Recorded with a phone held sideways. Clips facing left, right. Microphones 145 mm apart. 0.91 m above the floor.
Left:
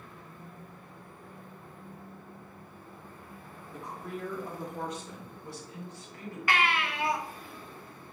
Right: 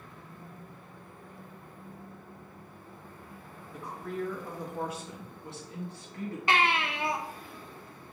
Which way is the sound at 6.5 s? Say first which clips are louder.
Right 1 dB; 25° right (ahead or behind).